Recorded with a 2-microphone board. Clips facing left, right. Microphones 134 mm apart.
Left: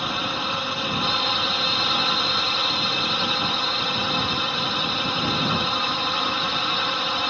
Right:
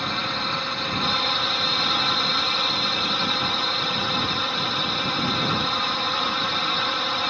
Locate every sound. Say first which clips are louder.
0.0 s a drone: left 1 dB; 10° left (ahead or behind)